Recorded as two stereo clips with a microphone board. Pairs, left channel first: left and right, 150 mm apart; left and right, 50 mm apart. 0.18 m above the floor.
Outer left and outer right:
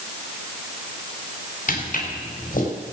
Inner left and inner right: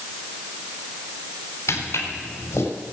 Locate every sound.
1.7 s footsteps: 65° left (ahead or behind), 5 m